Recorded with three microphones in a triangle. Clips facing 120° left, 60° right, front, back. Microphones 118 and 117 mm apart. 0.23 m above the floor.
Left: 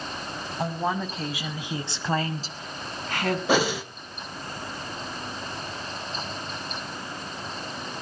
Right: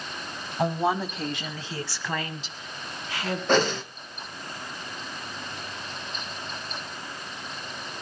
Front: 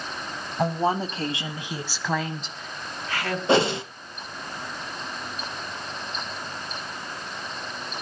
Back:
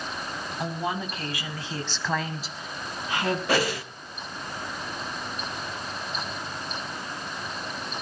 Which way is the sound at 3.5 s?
45° left.